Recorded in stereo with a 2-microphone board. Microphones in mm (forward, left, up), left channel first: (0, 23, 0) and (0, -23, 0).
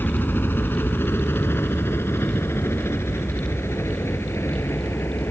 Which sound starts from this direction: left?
A helicopter, at 0.0 s.